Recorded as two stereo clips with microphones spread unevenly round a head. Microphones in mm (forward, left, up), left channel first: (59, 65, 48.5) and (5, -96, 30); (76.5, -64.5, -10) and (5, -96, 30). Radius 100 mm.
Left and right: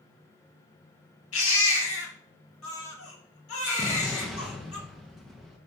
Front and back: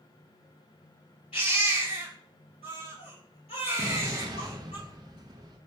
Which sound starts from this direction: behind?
An explosion, at 3.8 s.